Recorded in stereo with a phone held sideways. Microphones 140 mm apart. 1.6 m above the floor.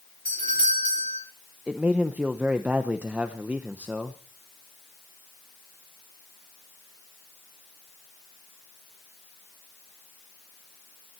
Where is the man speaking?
10° right (ahead or behind), 0.9 m.